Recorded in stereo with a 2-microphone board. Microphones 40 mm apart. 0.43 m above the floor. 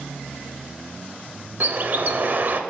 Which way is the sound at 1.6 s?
50° right (ahead or behind).